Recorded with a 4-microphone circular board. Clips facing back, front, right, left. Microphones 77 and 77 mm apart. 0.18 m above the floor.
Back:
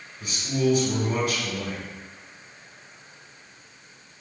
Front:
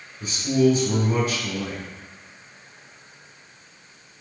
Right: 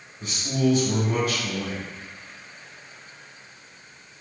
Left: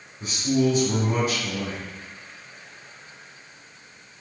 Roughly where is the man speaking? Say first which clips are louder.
Front 6 dB, left 2 dB; ahead left.